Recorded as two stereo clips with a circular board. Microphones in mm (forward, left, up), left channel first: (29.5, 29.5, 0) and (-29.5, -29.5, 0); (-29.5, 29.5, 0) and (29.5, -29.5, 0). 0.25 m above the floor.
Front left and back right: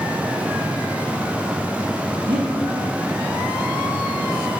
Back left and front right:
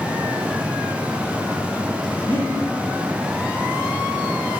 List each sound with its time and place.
2.3 s breathing: 155° right, 4.5 m